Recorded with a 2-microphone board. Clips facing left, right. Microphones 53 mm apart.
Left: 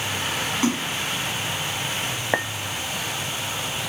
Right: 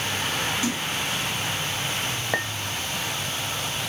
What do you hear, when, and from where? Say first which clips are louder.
0.6 s a splash: left 4 dB; 40° left (ahead or behind), 1.4 m
2.3 s a clink: left 3 dB; 20° left (ahead or behind), 0.5 m